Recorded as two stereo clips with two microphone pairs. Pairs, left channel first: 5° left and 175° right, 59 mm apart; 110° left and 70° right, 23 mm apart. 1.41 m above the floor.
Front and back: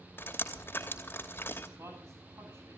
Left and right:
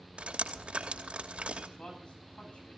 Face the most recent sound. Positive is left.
turn(degrees=150)